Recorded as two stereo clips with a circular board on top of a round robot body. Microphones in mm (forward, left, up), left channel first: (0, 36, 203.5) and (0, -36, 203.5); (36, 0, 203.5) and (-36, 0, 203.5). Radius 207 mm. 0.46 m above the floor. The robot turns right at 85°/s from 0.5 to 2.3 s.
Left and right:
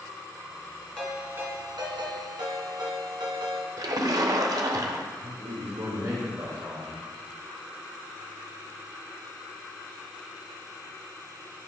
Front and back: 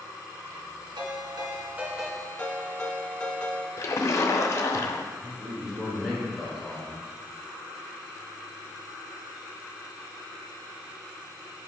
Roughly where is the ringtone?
Behind.